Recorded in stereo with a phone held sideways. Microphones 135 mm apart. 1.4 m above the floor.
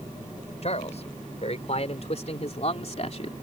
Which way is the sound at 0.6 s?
50° left (ahead or behind).